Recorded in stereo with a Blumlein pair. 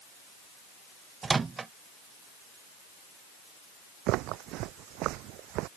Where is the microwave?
15° right.